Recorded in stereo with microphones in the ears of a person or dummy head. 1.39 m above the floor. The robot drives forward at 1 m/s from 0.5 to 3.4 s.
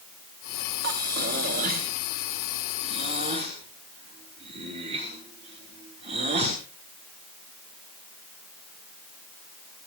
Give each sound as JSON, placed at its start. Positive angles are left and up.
{"t": 0.8, "sound": "breathing", "side_deg": -55, "distance_m": 3.0}